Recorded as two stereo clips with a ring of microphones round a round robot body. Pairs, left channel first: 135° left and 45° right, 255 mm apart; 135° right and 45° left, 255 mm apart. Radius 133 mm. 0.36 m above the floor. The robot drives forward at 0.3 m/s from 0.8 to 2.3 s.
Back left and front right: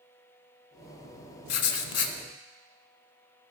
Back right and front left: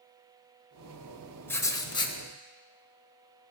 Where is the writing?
145° left, 0.5 m; by 2.1 s 155° left, 0.7 m.